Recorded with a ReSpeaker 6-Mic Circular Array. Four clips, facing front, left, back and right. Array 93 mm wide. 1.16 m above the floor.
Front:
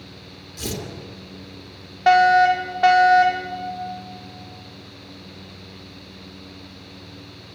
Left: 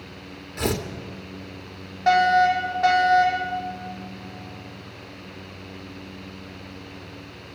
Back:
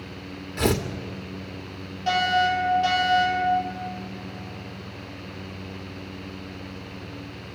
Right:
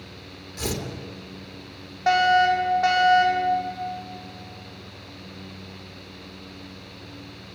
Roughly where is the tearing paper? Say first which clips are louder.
Left 5 dB, back 8 dB; behind left.